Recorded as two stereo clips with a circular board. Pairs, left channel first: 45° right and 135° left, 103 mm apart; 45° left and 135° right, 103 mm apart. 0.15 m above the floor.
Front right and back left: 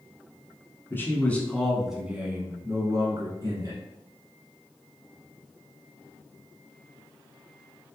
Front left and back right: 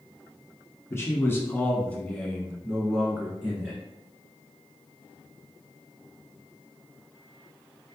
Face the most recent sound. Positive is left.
turn(degrees=150)